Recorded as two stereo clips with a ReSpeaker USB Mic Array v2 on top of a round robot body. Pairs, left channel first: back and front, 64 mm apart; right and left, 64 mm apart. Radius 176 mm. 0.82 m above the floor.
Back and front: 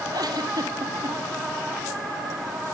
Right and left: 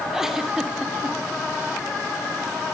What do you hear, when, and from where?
0.1 s a giggle: 5° left, 2.5 m